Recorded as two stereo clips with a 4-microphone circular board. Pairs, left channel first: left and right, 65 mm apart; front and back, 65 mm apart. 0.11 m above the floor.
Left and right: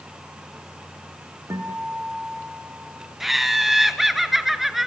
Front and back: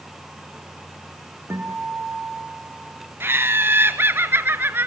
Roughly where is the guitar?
Behind right.